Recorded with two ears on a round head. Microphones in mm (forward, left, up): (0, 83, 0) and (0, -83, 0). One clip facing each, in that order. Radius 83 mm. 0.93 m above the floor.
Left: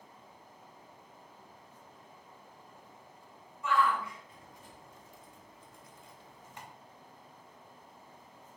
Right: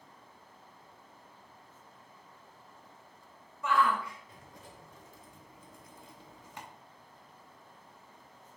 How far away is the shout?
About 3.5 m.